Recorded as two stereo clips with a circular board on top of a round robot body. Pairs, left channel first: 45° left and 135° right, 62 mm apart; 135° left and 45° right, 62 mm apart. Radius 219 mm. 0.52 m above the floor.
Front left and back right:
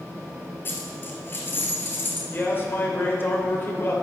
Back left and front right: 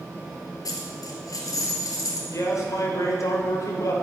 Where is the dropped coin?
100° left, 1.7 m.